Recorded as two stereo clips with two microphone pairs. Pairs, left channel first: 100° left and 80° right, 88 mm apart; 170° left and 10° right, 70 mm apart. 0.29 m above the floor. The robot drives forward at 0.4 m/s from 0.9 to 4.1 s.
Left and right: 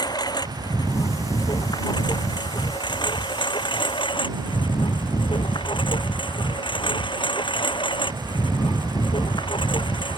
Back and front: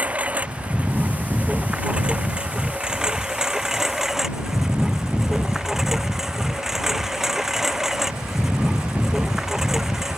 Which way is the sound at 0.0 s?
60° left.